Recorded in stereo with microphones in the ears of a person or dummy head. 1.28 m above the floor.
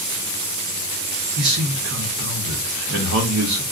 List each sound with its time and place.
1.4 s a man speaking: 70° right (ahead or behind), 0.8 m